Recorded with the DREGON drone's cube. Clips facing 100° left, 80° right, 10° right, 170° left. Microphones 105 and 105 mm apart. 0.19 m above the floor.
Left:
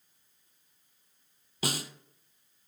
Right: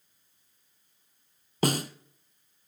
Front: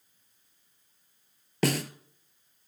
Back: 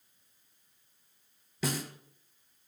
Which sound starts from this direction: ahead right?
A snare drum, at 1.6 s.